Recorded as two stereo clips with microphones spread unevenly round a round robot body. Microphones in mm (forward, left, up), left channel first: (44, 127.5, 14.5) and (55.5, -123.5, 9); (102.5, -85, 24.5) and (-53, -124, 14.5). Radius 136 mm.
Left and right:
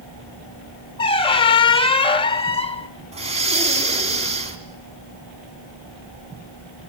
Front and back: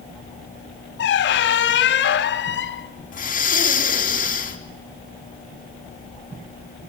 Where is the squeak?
20° left, 1.4 m.